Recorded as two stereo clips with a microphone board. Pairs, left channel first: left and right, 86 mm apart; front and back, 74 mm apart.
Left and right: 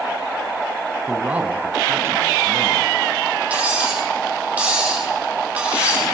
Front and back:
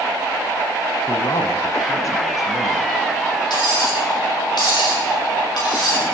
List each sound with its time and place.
1.1 s a man speaking: 10° right, 1.4 m; by 2.9 s 40° right, 3 m
3.5 s cutlery clinking: 15° right, 6 m